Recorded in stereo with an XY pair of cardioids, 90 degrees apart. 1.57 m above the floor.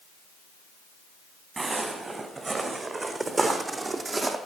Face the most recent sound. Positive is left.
turn(degrees=-40)